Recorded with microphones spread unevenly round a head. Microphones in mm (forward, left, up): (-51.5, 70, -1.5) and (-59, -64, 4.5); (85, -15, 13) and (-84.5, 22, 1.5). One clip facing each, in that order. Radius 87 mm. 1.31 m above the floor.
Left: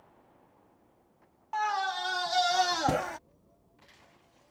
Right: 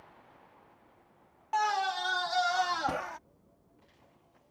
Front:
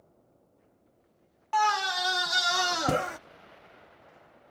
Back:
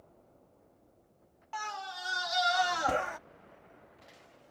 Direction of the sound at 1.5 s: 40° right.